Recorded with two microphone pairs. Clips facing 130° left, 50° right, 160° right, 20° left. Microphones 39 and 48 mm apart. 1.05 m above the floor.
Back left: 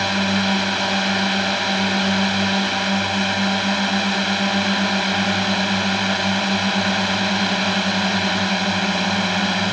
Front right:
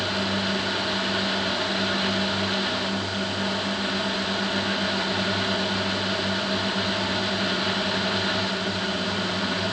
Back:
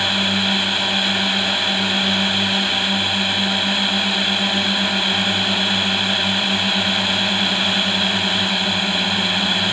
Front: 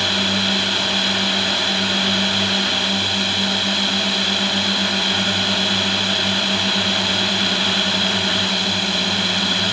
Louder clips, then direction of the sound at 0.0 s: Back left 6 dB, back 1 dB; 125° left.